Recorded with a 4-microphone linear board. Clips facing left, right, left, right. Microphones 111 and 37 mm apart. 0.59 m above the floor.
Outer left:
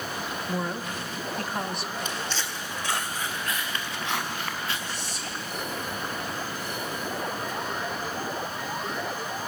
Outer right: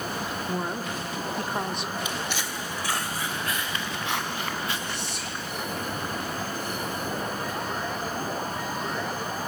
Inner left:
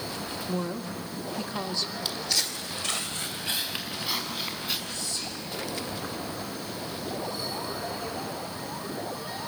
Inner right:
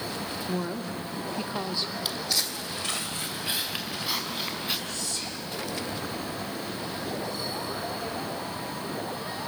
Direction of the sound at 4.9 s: 55° right (ahead or behind).